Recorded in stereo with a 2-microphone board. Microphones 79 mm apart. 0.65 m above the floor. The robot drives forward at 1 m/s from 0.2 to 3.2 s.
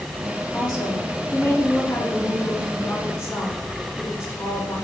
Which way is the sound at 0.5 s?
65° left (ahead or behind).